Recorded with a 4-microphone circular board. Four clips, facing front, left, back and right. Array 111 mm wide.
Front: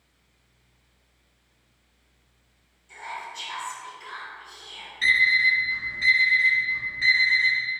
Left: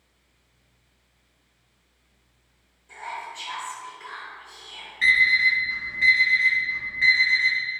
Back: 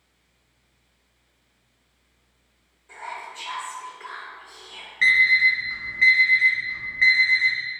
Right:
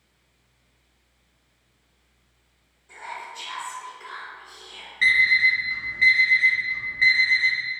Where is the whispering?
175° right, 0.8 m.